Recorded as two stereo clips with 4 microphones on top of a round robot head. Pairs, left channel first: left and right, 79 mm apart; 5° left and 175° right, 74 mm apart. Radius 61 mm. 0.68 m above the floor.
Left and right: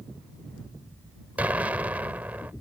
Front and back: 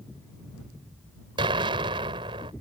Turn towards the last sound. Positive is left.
turn(degrees=-165)